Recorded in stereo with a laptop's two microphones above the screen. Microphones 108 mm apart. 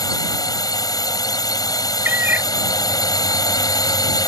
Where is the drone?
35° left (ahead or behind).